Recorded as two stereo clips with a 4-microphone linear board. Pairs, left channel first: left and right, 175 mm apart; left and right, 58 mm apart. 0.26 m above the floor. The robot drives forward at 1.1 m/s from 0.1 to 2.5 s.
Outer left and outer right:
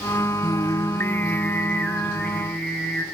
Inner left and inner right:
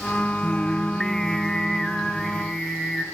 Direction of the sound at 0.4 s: 25° left (ahead or behind).